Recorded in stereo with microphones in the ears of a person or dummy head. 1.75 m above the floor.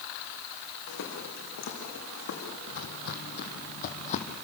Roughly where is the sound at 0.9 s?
Left.